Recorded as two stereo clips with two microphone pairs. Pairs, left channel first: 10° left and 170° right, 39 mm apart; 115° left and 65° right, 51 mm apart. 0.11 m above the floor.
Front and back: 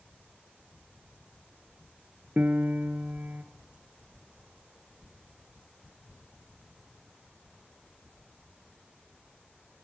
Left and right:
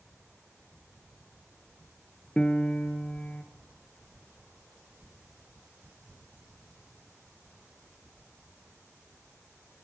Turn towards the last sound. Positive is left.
turn(degrees=180)